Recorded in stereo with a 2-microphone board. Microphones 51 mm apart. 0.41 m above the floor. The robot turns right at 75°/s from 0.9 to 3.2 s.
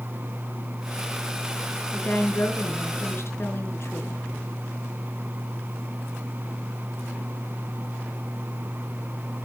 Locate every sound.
1.9 s a woman speaking: 25° left, 4.5 m; by 4.2 s 120° left, 4.5 m